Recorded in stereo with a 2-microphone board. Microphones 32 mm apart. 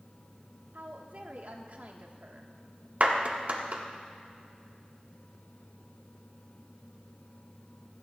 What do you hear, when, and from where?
0.7 s a woman speaking: 60° right (ahead or behind), 1.3 m
3.0 s a clap: 55° right (ahead or behind), 1.4 m